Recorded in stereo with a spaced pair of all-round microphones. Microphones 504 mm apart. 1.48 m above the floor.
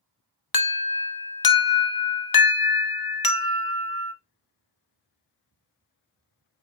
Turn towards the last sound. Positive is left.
turn(degrees=45)  # may be behind; listen again after turning